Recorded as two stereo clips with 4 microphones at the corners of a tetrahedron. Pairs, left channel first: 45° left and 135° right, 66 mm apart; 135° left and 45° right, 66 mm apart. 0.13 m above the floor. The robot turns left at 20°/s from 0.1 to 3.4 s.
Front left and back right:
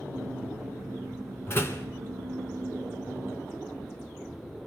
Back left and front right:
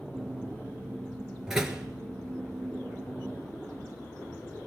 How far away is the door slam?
About 1.5 m.